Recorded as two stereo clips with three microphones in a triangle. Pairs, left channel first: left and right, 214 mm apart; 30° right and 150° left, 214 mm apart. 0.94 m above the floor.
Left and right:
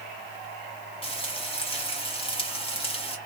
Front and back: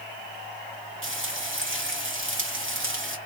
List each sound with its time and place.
1.0 s frying: 150° left, 1.4 m